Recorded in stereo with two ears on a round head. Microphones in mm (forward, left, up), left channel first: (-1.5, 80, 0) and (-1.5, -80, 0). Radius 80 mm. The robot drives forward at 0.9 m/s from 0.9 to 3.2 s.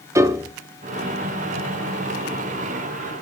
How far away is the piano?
About 0.6 m.